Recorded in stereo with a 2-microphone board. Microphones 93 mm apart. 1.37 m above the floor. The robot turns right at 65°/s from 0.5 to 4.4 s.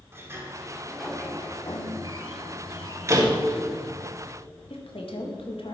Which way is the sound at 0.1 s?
30° right.